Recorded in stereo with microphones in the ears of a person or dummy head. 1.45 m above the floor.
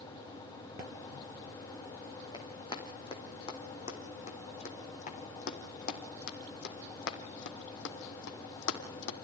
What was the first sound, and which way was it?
Running footsteps, 20° left (ahead or behind).